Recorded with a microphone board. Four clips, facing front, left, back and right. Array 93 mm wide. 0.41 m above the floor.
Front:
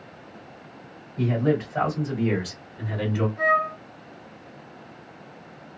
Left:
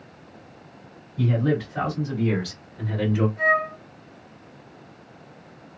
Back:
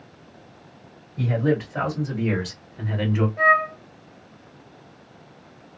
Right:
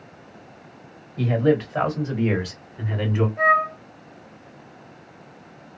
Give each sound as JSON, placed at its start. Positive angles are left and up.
{"t": 1.2, "sound": "a man speaking", "azimuth_deg": -100, "distance_m": 2.5}
{"t": 3.4, "sound": "a flute", "azimuth_deg": -150, "distance_m": 1.4}